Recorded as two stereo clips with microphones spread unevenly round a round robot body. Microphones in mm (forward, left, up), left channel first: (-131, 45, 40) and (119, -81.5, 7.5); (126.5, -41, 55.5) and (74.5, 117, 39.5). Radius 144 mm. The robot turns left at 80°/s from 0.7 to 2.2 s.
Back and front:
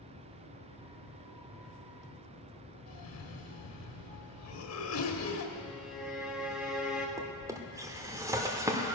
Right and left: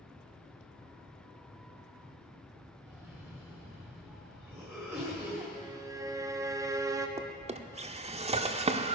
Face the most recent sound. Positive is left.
turn(degrees=55)